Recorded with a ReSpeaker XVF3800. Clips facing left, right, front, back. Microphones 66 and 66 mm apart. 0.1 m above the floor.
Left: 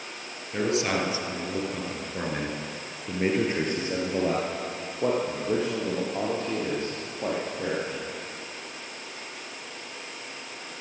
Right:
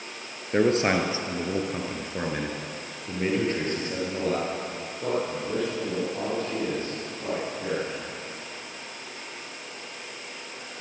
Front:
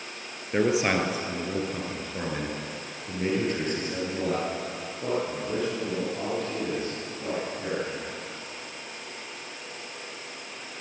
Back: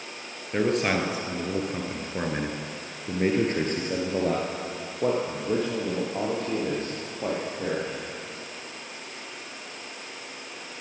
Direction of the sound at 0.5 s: 75° right.